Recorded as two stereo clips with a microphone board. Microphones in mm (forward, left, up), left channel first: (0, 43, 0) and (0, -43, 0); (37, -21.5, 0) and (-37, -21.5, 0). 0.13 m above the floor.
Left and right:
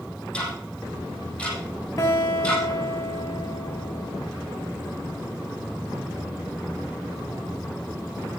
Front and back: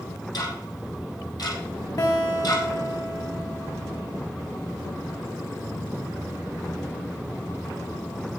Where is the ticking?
15° left, 5 m.